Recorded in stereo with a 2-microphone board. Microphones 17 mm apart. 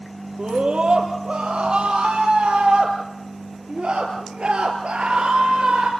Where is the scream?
60° right (ahead or behind), 4 m.